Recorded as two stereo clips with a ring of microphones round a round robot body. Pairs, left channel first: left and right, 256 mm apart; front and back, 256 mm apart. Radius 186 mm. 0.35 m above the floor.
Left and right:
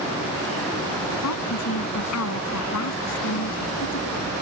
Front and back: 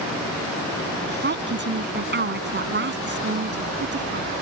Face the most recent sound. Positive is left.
turn(degrees=130)